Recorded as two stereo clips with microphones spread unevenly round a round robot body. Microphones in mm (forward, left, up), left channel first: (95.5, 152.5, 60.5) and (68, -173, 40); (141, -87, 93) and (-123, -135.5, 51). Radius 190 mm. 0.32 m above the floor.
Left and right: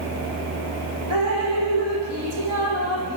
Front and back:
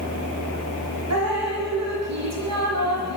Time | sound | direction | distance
1.1 | dripping | 145° right | 5.5 m